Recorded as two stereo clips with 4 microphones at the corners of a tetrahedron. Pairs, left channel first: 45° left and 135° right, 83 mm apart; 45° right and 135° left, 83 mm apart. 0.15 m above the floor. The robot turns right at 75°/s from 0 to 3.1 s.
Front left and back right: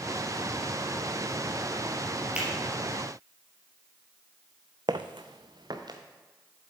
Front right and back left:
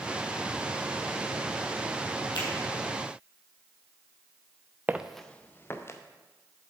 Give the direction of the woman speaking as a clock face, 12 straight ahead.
I don't hear a woman speaking.